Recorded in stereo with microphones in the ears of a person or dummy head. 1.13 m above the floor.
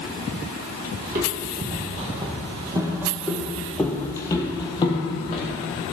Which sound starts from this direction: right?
Footsteps, at 1.0 s.